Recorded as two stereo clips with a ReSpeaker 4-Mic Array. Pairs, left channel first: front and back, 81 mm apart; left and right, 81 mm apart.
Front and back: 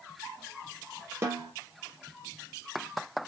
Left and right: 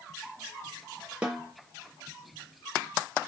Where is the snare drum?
155° right, 0.7 m.